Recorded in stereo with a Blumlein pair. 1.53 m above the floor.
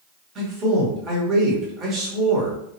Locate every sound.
0.3 s a man speaking: 30° right, 2.0 m